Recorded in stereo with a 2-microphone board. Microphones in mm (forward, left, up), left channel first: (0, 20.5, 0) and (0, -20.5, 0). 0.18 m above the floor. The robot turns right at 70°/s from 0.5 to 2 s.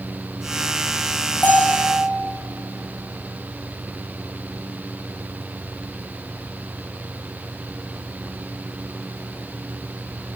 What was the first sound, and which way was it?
A bell, 45° left.